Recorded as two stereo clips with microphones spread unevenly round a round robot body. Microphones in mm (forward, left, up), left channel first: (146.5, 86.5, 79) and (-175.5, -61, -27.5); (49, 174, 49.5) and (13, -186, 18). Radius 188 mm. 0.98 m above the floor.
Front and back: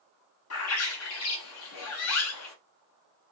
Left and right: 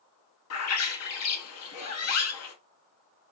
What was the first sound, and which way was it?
A bird, 45° left.